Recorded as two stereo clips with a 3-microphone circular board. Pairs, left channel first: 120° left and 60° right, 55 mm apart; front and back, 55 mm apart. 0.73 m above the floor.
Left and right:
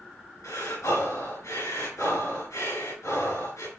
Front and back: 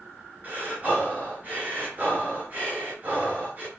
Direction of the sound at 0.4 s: 120° left.